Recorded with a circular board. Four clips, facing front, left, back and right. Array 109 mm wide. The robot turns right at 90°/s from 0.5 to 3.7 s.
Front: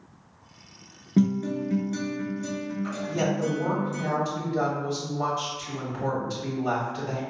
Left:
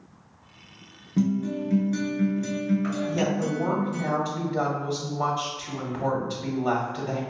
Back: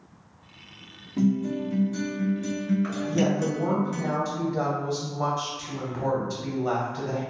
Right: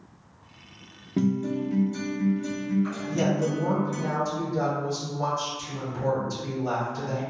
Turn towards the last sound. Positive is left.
turn(degrees=70)